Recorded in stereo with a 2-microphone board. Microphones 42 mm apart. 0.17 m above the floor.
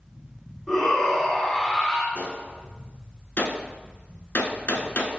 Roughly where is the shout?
Centre.